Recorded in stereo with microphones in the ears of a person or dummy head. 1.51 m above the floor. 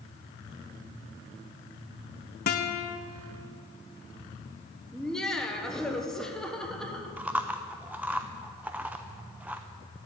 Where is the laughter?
5° left (ahead or behind), 1.3 m.